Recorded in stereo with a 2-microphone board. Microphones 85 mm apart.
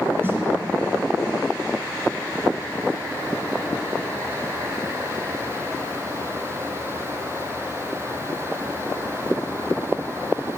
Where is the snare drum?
30° right (ahead or behind), 1.2 m.